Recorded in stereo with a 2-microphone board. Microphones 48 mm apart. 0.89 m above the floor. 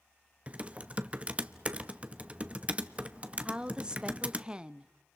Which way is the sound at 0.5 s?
25° right (ahead or behind).